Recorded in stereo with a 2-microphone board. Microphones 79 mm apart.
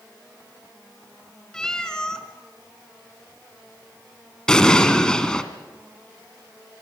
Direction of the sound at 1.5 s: 10° left (ahead or behind).